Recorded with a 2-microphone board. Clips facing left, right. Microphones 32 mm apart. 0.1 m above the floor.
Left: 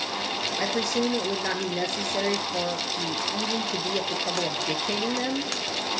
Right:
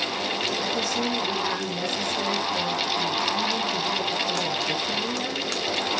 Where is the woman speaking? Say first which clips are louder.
Even; 50° left (ahead or behind), 2.5 m.